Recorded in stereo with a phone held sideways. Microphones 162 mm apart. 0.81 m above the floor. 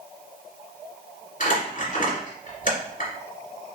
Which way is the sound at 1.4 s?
55° left (ahead or behind).